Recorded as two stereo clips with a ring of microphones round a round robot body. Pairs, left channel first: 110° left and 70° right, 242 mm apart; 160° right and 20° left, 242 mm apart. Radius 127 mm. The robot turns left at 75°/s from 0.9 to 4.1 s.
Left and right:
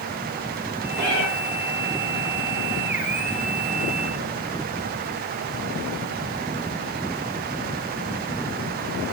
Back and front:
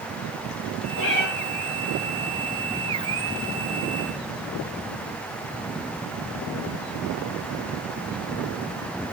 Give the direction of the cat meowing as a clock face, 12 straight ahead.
6 o'clock.